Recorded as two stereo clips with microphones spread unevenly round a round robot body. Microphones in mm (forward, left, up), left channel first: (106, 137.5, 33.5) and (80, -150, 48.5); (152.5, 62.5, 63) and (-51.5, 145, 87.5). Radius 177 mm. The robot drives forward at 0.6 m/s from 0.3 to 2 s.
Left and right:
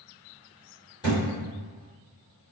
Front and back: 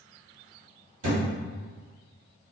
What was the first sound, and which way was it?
A thud, 160° left.